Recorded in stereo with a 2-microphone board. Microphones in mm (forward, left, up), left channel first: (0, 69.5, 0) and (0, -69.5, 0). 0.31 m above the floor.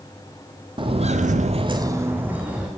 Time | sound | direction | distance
0.8 | footsteps | 35° right (ahead or behind) | 0.9 m